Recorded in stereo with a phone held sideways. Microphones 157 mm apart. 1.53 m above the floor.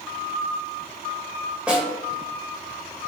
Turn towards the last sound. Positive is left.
turn(degrees=-5)  # may be behind; listen again after turning